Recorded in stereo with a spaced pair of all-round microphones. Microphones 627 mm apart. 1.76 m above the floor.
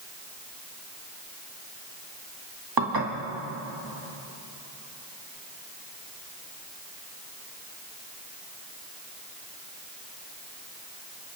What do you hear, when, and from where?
2.8 s dishes clattering: 35° right (ahead or behind), 1.9 m